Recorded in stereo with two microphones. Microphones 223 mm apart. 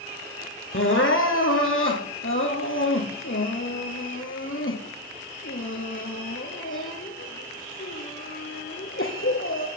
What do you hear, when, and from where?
0.7 s crying: 65° left (ahead or behind), 1.8 m